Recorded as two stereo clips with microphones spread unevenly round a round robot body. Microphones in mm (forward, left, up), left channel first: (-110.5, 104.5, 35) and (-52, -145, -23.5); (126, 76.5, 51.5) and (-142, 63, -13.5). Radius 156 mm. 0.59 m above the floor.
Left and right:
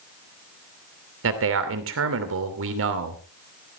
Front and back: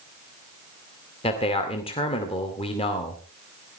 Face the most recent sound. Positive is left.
turn(degrees=-75)